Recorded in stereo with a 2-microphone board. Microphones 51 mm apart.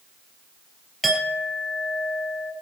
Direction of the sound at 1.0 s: Centre (ahead or behind).